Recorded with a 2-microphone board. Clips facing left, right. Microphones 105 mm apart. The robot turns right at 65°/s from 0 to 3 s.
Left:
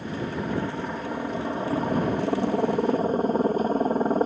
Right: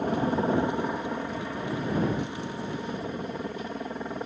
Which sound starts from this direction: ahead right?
A helicopter, at 0.0 s.